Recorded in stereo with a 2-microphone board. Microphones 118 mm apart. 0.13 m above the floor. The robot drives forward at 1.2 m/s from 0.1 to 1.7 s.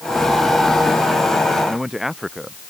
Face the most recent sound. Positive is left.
turn(degrees=-5)  # may be behind; listen again after turning